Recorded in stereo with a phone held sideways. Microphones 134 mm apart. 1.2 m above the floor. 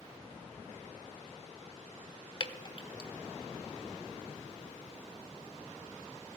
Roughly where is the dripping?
Left.